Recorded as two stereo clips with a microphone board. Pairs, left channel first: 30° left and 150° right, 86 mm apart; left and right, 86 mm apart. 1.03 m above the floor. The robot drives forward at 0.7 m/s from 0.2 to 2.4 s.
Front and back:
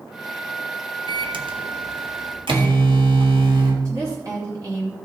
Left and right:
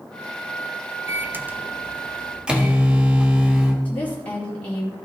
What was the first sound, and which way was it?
A microwave, 150° right.